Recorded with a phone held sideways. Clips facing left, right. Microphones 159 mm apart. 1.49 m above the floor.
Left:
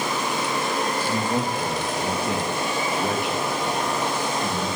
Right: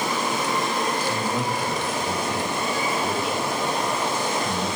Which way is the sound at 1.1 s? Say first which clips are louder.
Left 1 dB; 50° left (ahead or behind).